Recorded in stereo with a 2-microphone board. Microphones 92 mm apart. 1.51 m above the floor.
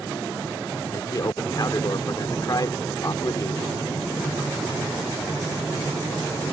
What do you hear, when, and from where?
0.9 s a man speaking: 45° left (ahead or behind)